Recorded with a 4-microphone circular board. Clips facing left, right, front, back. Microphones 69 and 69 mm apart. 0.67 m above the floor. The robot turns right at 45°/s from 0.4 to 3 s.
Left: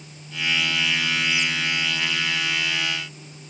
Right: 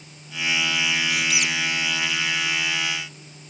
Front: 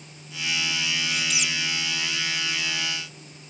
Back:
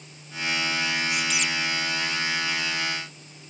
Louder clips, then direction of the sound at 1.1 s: Even, back 2 dB; 100° right.